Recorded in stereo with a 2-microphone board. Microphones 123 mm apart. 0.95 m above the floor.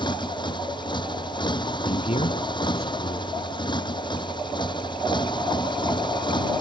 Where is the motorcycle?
40° left (ahead or behind).